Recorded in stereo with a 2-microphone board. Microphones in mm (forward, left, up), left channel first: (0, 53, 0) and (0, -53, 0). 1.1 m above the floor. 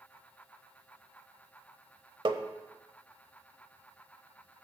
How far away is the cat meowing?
I don't hear a cat meowing.